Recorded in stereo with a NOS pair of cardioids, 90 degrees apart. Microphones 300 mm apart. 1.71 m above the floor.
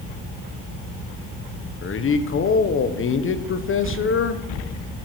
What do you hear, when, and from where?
1.8 s a man speaking: 45° left, 1.4 m